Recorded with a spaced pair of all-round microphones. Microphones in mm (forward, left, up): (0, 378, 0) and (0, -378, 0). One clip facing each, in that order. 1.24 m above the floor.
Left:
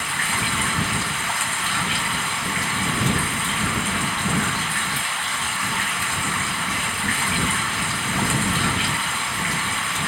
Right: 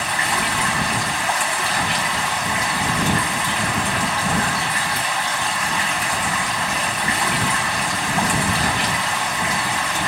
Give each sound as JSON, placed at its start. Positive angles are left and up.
{"t": 0.0, "sound": "running water", "side_deg": -80}